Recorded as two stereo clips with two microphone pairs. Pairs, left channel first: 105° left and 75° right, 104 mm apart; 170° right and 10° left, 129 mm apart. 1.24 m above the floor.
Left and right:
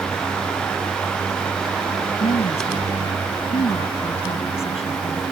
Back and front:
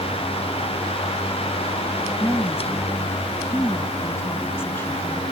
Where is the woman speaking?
120° left.